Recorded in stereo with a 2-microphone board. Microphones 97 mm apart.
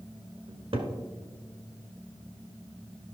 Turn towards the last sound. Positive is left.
turn(degrees=-60)  # may be behind; listen again after turning